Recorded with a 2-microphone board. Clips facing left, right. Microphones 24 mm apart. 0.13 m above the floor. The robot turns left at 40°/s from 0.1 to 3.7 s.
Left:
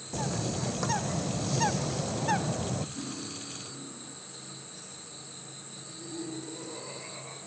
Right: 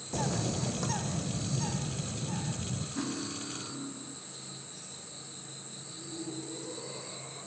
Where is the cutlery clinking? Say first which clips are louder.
Right 2 dB; 35° right, 6.5 m; by 4.2 s 65° right, 6.5 m.